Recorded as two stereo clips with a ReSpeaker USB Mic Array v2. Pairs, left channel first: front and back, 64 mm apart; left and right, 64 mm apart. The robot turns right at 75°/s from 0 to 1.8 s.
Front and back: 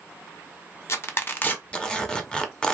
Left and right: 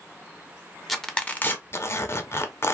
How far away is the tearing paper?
About 0.6 m.